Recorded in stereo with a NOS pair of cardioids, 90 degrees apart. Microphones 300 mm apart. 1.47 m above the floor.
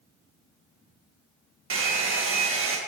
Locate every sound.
1.7 s a hair dryer: 45° right, 1.4 m